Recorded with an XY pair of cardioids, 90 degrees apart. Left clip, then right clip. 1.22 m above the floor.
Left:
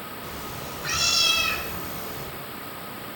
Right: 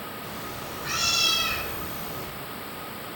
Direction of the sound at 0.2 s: 55° left.